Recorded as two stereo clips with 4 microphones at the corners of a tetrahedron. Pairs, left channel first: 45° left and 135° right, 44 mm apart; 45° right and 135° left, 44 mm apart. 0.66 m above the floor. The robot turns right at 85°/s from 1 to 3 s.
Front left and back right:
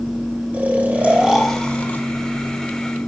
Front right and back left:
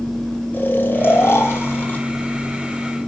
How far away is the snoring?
About 2.5 m.